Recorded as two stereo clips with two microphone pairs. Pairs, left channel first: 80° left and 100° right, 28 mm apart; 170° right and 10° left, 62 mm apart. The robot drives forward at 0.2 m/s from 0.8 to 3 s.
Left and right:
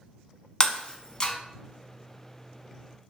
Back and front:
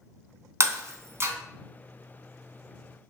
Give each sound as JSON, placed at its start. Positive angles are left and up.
{"t": 0.6, "sound": "breaking glass", "azimuth_deg": 30, "distance_m": 0.6}